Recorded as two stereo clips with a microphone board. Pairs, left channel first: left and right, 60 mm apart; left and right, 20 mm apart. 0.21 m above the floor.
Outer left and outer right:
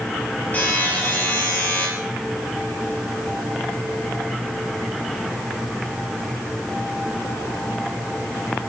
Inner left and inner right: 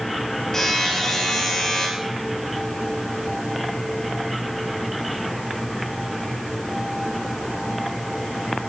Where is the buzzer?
30° left (ahead or behind), 6 m.